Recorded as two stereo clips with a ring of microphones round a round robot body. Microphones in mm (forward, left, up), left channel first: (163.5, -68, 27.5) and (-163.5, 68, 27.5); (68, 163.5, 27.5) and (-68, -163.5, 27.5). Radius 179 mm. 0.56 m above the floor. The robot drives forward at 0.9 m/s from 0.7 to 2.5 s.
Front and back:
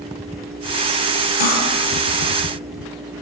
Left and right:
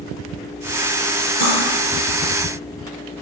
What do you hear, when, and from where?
1.4 s cutlery clinking: 10° right, 7.5 m